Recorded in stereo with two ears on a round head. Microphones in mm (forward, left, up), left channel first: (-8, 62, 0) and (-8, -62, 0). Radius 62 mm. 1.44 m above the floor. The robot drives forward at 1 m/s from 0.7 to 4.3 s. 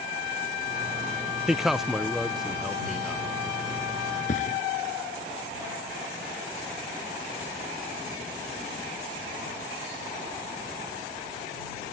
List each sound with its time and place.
1.5 s a man speaking: 5° right (ahead or behind); by 3.3 s centre (ahead or behind)
4.3 s a thud: 60° left (ahead or behind)